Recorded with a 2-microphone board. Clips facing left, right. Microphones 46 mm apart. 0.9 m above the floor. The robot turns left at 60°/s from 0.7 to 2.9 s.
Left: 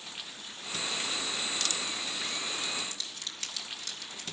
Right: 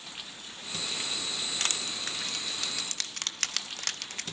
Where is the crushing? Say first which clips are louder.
Right 1 dB; 40° right (ahead or behind), 0.8 m; by 4.2 s 65° right (ahead or behind), 0.8 m.